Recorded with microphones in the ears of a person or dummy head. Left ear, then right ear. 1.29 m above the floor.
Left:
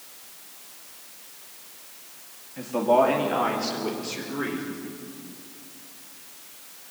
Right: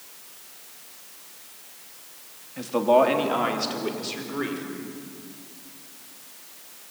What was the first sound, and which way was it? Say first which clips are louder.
A man speaking: right 1 dB; 20° right (ahead or behind).